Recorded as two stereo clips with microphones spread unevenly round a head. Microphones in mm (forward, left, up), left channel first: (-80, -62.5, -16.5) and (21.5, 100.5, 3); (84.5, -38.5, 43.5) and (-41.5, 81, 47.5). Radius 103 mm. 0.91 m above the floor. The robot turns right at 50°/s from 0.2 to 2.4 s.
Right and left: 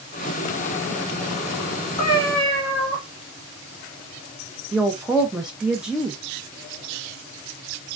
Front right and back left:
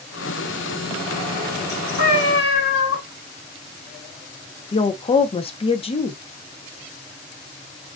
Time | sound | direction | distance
2.0 | a cat meowing | 60° right | 1.4 m
4.7 | a woman speaking | 35° right | 0.5 m